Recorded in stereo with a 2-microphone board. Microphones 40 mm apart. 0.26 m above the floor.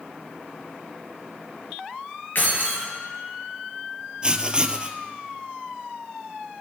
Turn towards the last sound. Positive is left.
turn(degrees=-25)  # may be behind; listen again after turning